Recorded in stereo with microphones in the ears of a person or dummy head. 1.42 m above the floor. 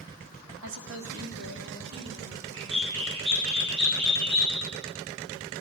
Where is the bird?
25° right (ahead or behind), 6.5 m.